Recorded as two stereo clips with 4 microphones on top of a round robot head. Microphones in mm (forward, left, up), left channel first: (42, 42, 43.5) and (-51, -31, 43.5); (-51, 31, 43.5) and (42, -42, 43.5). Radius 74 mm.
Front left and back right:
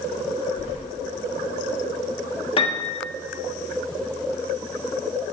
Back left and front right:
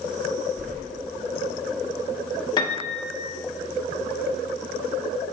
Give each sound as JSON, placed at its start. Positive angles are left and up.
{"t": 0.6, "sound": "keys jangling", "azimuth_deg": -5, "distance_m": 2.5}
{"t": 2.6, "sound": "a piano", "azimuth_deg": 85, "distance_m": 1.2}